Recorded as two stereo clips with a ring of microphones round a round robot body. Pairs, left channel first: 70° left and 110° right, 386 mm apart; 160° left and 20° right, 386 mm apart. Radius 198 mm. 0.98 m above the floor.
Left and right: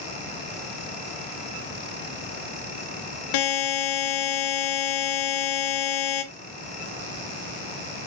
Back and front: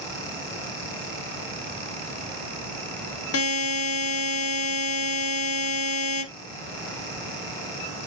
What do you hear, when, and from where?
3.3 s a buzzer: 100° left, 1.4 m